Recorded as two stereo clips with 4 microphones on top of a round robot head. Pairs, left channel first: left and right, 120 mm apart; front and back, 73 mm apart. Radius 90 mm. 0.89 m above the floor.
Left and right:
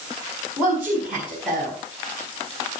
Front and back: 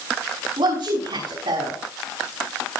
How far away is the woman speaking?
About 7 m.